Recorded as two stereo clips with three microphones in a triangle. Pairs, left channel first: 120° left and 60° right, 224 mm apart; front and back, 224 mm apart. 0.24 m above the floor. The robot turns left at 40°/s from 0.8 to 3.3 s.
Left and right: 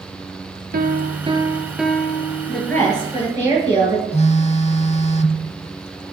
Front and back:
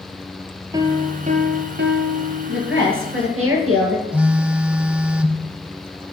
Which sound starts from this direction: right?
A piano, at 0.7 s.